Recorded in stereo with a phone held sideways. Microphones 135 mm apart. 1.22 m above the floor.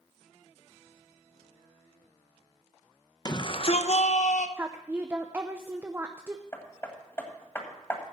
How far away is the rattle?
I don't hear a rattle.